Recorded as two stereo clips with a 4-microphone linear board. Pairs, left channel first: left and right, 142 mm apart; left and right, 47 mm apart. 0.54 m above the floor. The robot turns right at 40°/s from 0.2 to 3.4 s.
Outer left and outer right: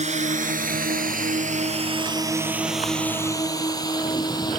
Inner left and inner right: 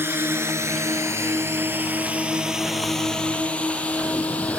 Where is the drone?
55° right (ahead or behind); by 4.6 s 30° left (ahead or behind).